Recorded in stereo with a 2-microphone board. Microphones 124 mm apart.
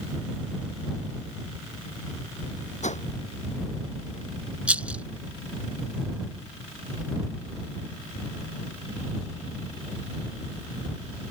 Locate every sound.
2.8 s a whoosh: 70° left (ahead or behind)
4.7 s a rattle: 10° right (ahead or behind)